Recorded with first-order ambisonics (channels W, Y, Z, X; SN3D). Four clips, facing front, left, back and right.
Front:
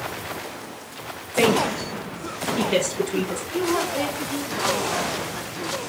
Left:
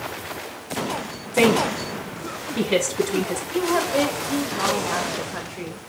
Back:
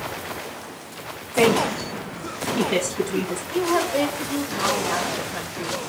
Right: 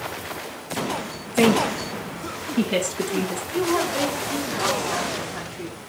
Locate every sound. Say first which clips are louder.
1.3 s a woman speaking: left 1 dB, back 1 dB; 95° left, 5.5 m
3.5 s a woman speaking: left 1 dB, back 3 dB; 120° left, 2.5 m